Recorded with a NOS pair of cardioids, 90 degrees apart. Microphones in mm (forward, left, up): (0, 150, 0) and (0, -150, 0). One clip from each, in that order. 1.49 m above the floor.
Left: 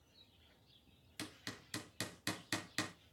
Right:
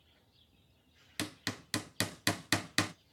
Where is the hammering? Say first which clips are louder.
Right 9 dB; 45° right, 0.7 m.